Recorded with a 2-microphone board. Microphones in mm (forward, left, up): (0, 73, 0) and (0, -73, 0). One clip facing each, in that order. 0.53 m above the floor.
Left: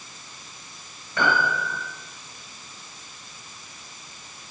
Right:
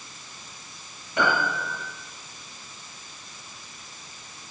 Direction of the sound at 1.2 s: 20° right (ahead or behind).